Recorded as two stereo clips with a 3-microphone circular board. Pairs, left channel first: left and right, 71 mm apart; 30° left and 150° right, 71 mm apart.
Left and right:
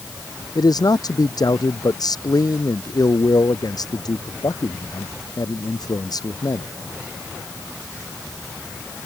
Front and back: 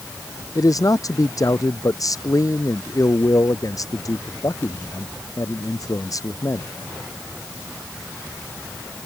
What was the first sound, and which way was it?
A man speaking, 65° left.